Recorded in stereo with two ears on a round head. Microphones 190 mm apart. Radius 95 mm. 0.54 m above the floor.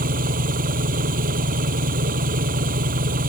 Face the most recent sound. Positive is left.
turn(degrees=-40)  # may be behind; listen again after turning